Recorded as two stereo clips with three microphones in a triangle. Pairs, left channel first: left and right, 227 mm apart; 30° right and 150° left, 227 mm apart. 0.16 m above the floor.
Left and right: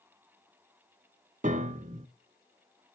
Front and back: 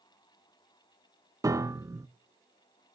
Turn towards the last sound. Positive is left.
turn(degrees=-135)